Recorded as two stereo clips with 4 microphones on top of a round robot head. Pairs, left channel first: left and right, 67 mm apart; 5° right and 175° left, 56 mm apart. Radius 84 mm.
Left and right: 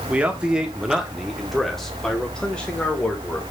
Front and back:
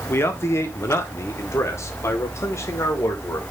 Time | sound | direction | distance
0.1 | a man speaking | 25° right | 1.7 m